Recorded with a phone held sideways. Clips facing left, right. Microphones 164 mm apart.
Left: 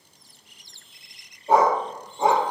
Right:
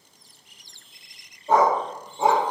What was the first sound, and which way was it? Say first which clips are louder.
A dog barking: even; 10° left (ahead or behind).